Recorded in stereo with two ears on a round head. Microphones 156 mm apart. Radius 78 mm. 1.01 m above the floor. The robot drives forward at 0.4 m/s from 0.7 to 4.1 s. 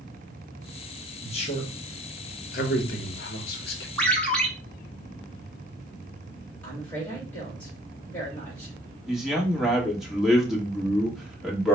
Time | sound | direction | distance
1.2 | a man speaking | 35° left (ahead or behind) | 1.3 m
4.0 | a ringtone | 5° left (ahead or behind) | 1.2 m
6.6 | a woman speaking | 10° left (ahead or behind) | 1.7 m
9.1 | a man speaking | centre (ahead or behind) | 1.4 m